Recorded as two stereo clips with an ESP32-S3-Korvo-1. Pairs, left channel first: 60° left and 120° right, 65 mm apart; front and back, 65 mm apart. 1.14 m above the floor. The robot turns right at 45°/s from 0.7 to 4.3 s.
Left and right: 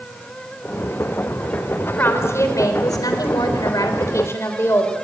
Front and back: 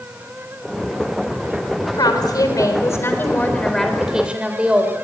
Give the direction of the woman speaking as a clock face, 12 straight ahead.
12 o'clock.